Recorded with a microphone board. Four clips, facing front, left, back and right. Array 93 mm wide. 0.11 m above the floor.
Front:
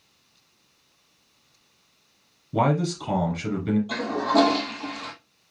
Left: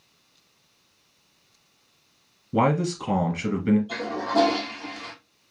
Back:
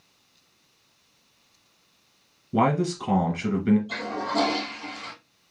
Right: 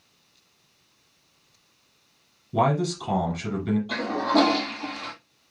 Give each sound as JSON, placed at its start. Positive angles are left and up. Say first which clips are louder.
{"t": 2.5, "sound": "a man speaking", "louder": "left 1 dB, even", "azimuth_deg": 125, "distance_m": 1.6}
{"t": 3.9, "sound": "a toilet flushing", "louder": "right 3 dB, front 5 dB", "azimuth_deg": -50, "distance_m": 1.1}